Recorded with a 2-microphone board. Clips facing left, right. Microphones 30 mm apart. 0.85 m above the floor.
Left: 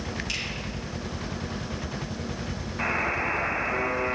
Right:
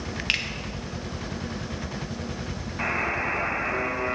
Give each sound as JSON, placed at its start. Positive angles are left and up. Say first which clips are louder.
{"t": 0.3, "sound": "a finger snap", "louder": "right 8 dB", "side_deg": -60, "distance_m": 1.0}
{"t": 2.8, "sound": "a buzzer", "louder": "even", "side_deg": 0, "distance_m": 2.0}